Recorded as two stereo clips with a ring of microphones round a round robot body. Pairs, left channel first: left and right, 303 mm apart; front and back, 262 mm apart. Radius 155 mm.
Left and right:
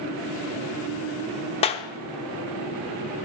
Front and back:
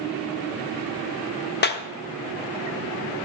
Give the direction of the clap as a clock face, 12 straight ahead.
11 o'clock.